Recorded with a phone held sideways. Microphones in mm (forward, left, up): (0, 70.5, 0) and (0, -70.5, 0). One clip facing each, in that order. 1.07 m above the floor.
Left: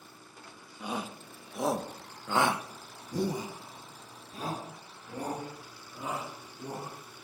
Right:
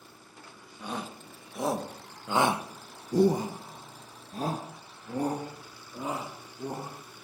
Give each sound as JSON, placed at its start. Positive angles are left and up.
{"t": 0.8, "sound": "a shout", "side_deg": 10, "distance_m": 1.7}